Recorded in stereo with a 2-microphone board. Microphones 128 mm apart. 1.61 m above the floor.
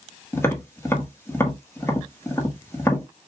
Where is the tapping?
20° left (ahead or behind), 1.4 m.